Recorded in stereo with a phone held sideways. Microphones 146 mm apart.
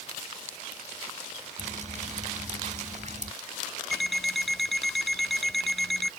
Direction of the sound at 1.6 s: 55° right (ahead or behind).